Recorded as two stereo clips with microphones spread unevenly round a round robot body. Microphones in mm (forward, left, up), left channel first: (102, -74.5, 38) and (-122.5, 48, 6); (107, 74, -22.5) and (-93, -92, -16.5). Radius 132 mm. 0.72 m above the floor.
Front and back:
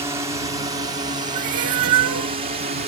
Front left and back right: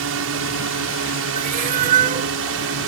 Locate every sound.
0.0 s a drone: 140° right; by 2.9 s 160° right
1.4 s a cat meowing: 155° left